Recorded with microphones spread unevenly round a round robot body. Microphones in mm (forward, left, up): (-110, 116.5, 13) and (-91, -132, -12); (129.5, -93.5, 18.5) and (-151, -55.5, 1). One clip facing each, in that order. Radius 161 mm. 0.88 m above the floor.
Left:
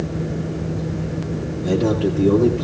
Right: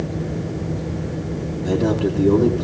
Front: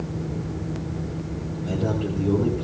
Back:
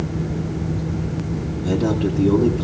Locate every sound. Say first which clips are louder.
1.6 s a man speaking: left 1 dB, back 6 dB; 170° right, 2 m